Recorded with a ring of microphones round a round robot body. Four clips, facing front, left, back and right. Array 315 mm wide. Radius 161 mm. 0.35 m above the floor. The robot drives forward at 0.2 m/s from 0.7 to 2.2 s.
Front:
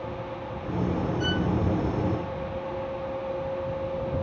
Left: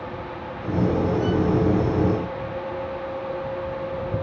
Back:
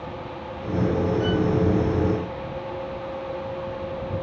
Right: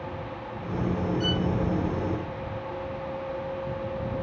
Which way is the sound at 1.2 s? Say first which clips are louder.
Left 6 dB, back 5 dB; 55° right.